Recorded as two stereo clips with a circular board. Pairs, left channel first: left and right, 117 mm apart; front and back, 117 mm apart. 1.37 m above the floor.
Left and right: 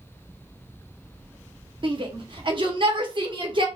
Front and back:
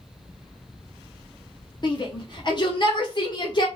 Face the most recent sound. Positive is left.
turn(degrees=-45)